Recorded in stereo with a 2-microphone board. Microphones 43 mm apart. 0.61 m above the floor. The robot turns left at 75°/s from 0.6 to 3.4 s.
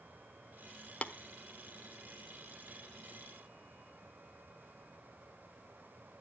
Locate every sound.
1.0 s tapping: 35° left (ahead or behind), 0.9 m; by 1.1 s 40° left (ahead or behind), 0.9 m